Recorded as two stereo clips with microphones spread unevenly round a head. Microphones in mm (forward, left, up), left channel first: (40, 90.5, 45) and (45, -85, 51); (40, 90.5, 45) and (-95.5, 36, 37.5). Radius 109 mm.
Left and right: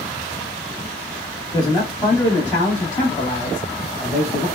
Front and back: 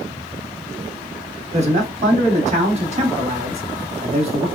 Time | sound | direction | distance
1.5 | a man speaking | 165° left | 1.7 m